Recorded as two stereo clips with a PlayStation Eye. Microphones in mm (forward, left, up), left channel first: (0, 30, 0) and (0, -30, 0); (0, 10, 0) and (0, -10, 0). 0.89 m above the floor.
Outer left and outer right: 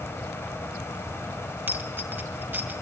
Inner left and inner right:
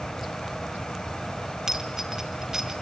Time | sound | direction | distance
1.7 | a dropped coin | 35° right (ahead or behind) | 3 m